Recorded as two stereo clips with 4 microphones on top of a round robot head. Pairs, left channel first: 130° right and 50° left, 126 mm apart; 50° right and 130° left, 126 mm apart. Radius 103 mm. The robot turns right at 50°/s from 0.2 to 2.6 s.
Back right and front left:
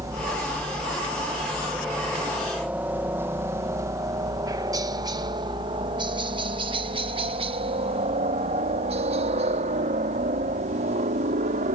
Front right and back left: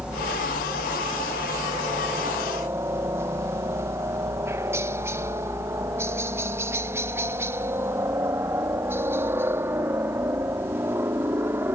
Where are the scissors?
I don't hear scissors.